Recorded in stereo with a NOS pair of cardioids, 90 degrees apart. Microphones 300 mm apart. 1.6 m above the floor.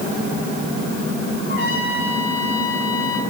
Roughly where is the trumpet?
Ahead left.